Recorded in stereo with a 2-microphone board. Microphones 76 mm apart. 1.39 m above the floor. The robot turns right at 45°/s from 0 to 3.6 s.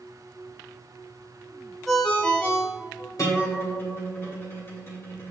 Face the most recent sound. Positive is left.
turn(degrees=35)  # may be behind; listen again after turning